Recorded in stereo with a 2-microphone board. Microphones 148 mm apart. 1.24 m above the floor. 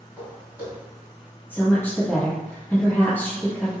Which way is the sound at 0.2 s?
15° right (ahead or behind).